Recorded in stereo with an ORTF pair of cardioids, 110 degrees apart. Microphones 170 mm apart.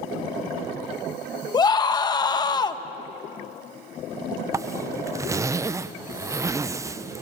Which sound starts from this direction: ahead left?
A scream, at 1.5 s.